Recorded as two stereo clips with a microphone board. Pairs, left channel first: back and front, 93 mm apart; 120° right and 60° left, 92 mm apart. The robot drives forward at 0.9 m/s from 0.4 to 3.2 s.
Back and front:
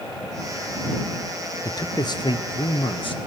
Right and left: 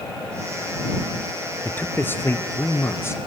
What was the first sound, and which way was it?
A man speaking, straight behind.